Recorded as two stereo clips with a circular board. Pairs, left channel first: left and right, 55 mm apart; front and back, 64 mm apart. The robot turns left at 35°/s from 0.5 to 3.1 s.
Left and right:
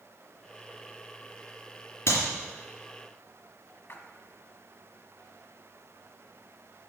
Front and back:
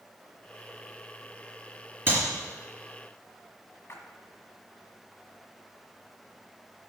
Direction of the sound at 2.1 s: 125° left.